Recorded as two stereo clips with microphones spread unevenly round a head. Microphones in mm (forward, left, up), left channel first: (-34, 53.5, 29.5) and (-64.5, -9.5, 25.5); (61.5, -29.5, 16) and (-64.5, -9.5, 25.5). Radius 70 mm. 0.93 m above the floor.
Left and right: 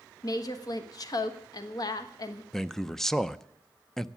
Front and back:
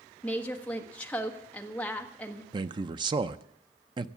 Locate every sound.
0.2 s a woman speaking: 65° left, 1.3 m
2.5 s a man speaking: 145° left, 0.6 m